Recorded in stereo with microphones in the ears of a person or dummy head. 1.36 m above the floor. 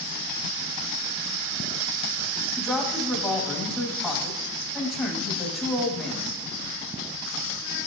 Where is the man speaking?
5° left (ahead or behind), 2 m.